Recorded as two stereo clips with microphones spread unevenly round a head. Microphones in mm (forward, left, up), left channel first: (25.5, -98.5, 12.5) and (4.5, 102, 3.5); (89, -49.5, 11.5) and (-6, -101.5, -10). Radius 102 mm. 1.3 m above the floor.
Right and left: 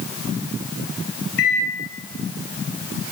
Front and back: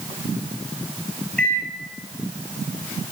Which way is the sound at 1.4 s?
50° right.